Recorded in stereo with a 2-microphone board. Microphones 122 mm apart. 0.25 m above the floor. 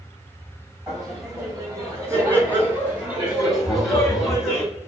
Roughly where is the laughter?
Right.